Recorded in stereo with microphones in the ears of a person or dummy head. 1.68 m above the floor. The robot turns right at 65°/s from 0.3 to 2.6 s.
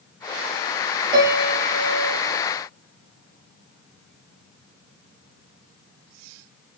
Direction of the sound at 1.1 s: 20° right.